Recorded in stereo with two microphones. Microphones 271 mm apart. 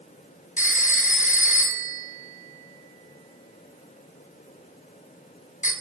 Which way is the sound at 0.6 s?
30° left (ahead or behind).